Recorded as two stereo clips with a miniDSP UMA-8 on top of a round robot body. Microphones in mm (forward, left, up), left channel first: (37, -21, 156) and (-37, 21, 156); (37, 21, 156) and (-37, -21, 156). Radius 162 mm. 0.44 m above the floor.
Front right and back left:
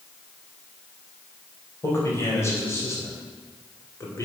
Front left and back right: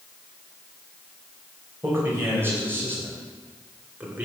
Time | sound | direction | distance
1.8 | a man speaking | 90° right | 4 m